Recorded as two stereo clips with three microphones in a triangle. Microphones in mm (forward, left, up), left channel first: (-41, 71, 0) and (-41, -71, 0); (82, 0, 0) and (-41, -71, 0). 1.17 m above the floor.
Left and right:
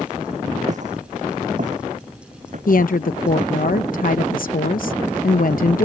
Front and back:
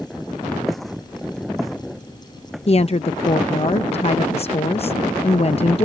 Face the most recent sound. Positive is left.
turn(degrees=75)